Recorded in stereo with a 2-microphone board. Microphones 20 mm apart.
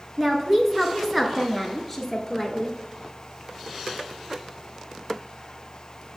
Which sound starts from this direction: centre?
A woman speaking, at 0.2 s.